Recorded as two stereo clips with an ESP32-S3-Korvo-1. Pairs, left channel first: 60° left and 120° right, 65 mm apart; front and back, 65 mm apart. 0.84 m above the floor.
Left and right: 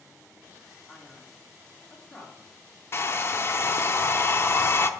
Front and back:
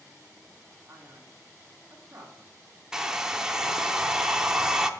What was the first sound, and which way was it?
A man speaking, 130° left.